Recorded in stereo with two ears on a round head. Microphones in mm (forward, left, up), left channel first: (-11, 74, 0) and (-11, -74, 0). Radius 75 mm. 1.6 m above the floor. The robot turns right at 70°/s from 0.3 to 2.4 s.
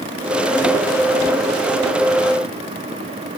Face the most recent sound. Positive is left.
No sound to turn to.